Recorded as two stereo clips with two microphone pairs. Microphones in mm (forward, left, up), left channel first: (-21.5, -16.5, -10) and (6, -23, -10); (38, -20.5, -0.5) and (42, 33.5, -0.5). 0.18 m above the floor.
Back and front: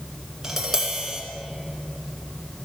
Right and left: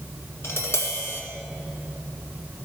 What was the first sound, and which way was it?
Tapping, 80° right.